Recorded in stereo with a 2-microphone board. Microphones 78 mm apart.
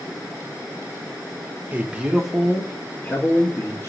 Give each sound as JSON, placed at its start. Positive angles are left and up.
{"t": 1.7, "sound": "a man speaking", "side_deg": -20, "distance_m": 0.6}